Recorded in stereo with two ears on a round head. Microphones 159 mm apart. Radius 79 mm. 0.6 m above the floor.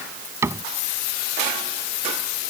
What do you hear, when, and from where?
0.4 s a cupboard door: 15° right (ahead or behind)